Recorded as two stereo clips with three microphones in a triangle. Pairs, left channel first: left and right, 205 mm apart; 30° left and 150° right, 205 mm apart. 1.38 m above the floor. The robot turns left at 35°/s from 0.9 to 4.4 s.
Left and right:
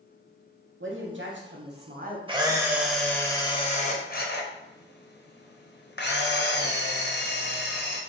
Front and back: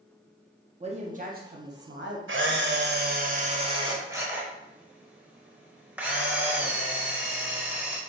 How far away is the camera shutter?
About 0.5 m.